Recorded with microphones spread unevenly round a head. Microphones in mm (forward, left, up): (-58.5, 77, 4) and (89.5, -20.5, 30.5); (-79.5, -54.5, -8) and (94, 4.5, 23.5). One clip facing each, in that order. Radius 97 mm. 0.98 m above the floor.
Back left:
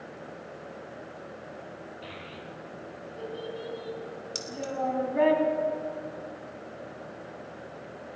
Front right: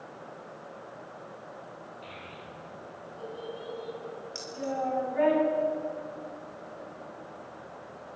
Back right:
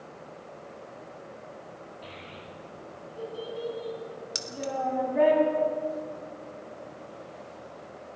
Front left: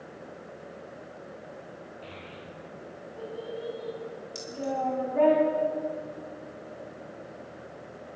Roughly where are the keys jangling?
Behind.